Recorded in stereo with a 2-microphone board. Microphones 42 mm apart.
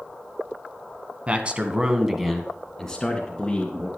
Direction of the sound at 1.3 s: 30° right (ahead or behind).